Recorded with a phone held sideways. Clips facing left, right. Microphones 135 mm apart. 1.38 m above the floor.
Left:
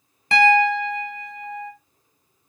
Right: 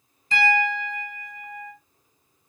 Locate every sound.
0.3 s a piano: 70° left (ahead or behind), 1.2 m